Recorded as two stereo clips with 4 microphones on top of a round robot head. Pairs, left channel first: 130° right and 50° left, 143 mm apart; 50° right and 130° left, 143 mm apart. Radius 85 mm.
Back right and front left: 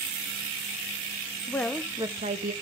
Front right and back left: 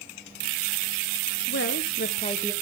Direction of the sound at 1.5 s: 50° right.